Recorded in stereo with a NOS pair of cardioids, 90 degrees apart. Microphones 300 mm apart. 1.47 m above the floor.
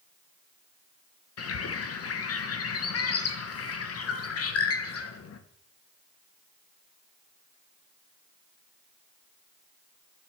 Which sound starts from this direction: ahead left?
A bird, at 1.4 s.